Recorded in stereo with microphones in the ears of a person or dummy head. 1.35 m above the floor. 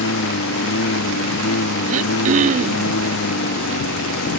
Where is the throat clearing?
40° right (ahead or behind).